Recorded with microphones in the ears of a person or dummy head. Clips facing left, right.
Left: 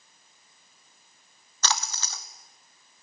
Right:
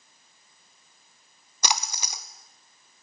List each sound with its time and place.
1.6 s a splash: 20° right (ahead or behind), 0.7 m